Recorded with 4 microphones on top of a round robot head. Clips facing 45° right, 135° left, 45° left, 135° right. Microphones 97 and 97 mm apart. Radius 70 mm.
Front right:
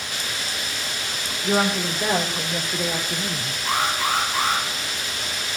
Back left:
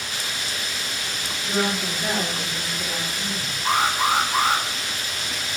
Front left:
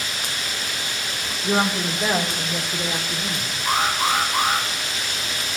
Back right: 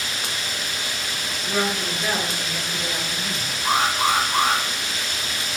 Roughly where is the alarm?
Behind.